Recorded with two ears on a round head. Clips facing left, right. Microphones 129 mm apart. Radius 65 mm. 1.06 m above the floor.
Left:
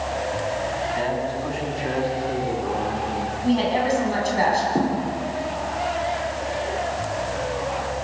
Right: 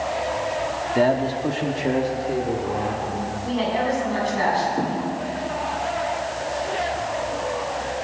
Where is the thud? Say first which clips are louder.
Left 3 dB; 70° left (ahead or behind), 9 m.